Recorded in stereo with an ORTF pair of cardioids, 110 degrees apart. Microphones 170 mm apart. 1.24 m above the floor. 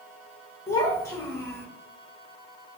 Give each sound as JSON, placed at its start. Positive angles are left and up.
{"t": 0.7, "sound": "a child speaking", "azimuth_deg": 15, "distance_m": 0.9}